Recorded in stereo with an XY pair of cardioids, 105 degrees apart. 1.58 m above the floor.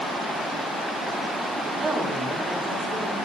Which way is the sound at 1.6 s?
35° right.